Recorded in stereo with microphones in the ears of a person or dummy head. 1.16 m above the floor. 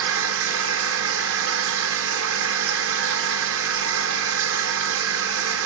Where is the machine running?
65° right (ahead or behind), 1.7 m.